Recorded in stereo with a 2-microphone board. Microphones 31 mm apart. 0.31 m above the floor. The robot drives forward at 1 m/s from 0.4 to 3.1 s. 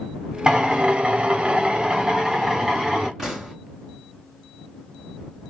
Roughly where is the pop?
Centre.